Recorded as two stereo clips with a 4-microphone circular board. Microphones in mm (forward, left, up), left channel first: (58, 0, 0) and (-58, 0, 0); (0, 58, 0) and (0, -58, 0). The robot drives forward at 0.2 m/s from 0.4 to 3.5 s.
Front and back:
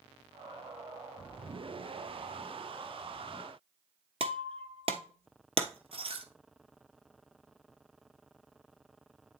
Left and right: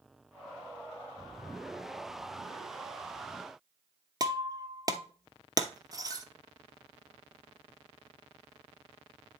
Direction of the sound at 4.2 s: 145° right.